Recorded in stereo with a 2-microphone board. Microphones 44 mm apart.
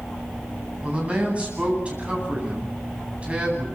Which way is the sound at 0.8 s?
30° right (ahead or behind).